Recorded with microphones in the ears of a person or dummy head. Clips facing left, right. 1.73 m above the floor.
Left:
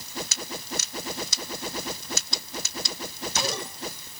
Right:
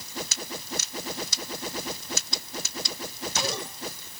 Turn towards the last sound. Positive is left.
No sound to turn to.